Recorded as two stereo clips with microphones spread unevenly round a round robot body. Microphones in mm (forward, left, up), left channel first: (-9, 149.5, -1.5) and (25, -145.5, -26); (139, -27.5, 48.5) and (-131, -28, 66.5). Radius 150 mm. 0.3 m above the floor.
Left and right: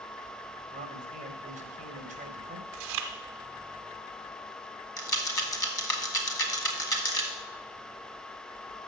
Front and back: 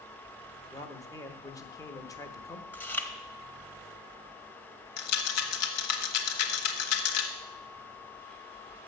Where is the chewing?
80° right, 1.0 m.